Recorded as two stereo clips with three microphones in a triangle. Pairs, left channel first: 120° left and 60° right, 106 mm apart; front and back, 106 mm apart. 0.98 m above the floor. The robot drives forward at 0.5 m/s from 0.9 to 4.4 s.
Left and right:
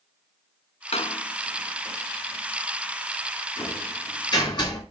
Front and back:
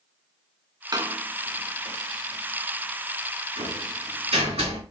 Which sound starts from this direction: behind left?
A door slam, at 0.9 s.